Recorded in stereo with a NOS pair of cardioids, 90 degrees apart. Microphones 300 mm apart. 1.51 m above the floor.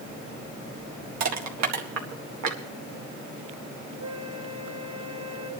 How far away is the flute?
About 3 m.